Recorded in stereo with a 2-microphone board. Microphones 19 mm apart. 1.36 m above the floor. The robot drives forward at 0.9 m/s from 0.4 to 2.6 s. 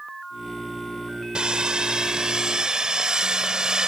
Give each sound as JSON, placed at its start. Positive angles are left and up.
{"t": 1.4, "sound": "sawing", "side_deg": -55}